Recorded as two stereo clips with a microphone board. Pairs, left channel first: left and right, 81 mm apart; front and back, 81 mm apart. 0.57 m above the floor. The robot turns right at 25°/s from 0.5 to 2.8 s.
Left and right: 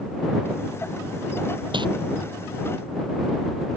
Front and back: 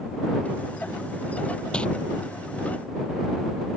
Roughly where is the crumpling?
Right.